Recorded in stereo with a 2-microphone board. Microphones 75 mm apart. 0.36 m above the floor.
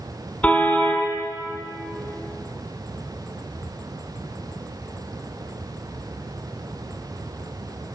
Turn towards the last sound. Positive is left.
turn(degrees=20)  # may be behind; listen again after turning